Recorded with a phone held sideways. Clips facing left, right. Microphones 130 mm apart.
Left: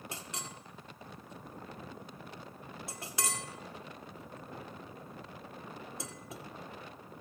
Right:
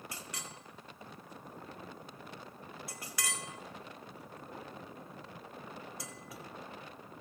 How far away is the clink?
About 1.1 m.